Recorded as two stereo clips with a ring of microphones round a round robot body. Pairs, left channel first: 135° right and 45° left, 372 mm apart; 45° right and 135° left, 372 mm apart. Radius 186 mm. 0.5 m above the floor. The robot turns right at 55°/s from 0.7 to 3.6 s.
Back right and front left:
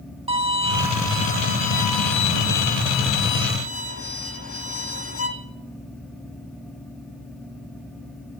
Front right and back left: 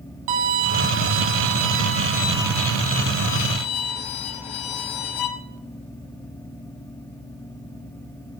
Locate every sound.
0.3 s a violin: 120° left, 1.0 m; by 5.3 s 80° right, 1.0 m